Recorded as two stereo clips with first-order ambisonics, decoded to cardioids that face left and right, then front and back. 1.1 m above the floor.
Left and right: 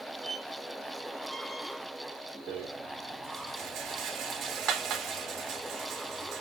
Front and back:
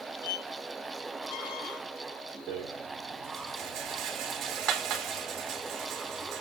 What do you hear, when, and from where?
0.2 s a squeak: 5° right, 1.8 m
2.5 s a rattle: 135° right, 3.5 m